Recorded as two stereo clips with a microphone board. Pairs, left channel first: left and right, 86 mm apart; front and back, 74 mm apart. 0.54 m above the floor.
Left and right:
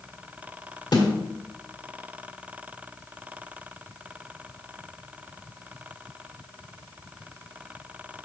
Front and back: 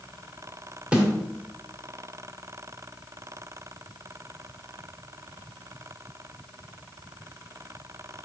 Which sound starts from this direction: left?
A snare drum, at 0.9 s.